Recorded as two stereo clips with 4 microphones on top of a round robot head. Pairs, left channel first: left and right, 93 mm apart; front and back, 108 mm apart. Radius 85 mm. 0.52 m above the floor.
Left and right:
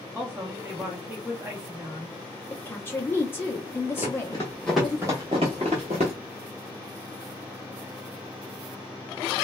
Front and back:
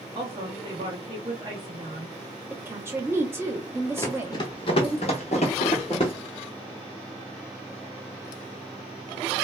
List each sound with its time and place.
0.1 s a woman speaking: 155° right, 1.0 m
2.5 s a woman speaking: 135° left, 0.8 m
4.0 s running footsteps: 50° left, 0.7 m; by 6.1 s 60° right, 0.9 m